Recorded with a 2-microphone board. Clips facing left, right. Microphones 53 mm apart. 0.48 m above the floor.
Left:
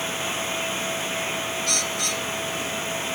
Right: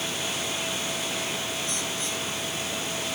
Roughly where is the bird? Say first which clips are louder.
Left 4 dB; left.